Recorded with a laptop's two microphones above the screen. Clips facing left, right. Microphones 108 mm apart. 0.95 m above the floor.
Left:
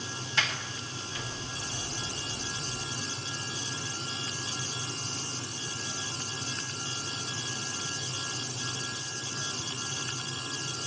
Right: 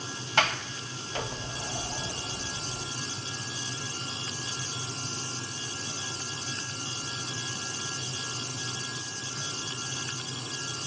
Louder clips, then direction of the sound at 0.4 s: Right 7 dB; 60° right (ahead or behind).